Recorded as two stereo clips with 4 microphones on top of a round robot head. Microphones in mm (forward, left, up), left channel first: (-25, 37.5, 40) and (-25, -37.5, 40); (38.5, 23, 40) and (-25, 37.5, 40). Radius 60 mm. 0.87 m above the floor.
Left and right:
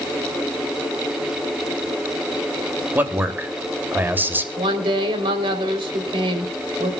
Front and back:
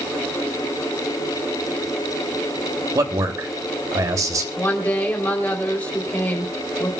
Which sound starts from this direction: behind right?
A man speaking, at 3.0 s.